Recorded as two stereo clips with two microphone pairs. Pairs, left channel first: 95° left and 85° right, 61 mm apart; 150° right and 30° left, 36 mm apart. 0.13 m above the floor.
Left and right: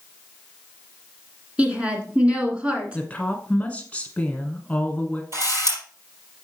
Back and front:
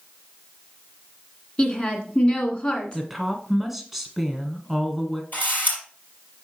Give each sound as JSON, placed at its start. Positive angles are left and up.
{"t": 1.6, "sound": "a woman speaking", "azimuth_deg": -130, "distance_m": 1.6}
{"t": 2.9, "sound": "a woman speaking", "azimuth_deg": 105, "distance_m": 1.0}
{"t": 5.3, "sound": "a camera shutter", "azimuth_deg": -115, "distance_m": 4.0}